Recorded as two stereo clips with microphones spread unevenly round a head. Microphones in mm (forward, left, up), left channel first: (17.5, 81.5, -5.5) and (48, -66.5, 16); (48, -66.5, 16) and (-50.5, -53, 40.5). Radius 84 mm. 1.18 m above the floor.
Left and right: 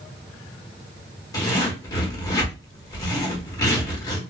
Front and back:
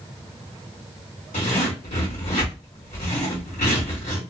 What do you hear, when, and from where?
1.3 s a zipper: 30° left, 1.3 m